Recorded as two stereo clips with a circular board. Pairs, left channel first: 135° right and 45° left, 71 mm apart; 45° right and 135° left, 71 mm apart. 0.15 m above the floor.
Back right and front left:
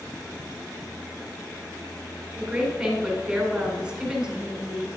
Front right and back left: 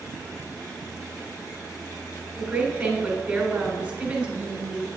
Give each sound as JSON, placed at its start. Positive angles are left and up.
{"t": 2.4, "sound": "a woman speaking", "azimuth_deg": 100, "distance_m": 1.4}